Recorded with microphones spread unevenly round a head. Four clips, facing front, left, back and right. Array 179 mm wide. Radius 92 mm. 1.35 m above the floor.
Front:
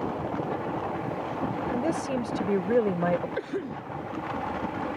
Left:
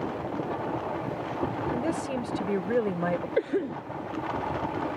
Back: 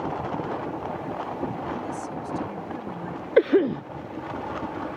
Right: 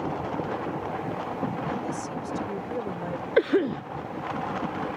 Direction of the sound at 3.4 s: 160° right.